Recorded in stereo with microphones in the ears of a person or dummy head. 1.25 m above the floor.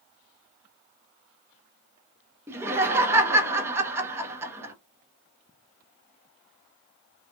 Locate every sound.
2.5 s laughter: 15° right (ahead or behind), 0.9 m